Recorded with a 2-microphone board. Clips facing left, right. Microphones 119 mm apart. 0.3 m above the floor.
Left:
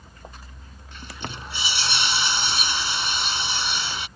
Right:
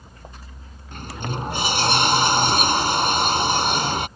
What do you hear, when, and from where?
0.9 s a sliding door: 55° right (ahead or behind)